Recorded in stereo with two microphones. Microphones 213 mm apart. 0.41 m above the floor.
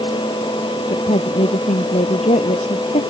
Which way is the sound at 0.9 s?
35° left (ahead or behind).